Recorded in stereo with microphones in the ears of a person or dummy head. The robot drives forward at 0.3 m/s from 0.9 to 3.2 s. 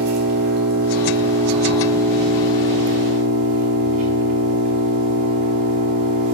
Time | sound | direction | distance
0.0 | an engine running | 60° right (ahead or behind) | 1.3 m